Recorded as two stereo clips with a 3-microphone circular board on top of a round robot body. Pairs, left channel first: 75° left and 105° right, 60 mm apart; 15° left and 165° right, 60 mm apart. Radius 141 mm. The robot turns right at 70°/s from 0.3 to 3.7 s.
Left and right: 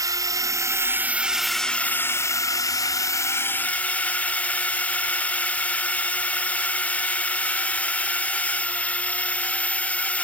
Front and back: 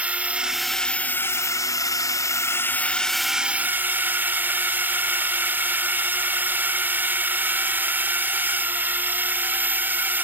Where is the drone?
100° right; by 10.2 s 140° left.